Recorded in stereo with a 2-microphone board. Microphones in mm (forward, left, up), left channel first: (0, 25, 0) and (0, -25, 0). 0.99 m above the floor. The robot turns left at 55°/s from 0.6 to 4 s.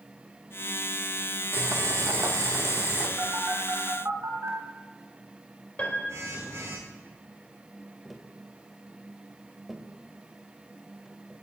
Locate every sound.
1.5 s boiling: 50° right, 2.5 m; by 3.1 s 135° right, 2.5 m
3.2 s a phone buzzing: 35° right (ahead or behind), 4 m; by 6.8 s 75° right (ahead or behind), 4 m
5.8 s a piano: 30° left (ahead or behind), 3.5 m
8.1 s tapping: 5° right (ahead or behind), 1.4 m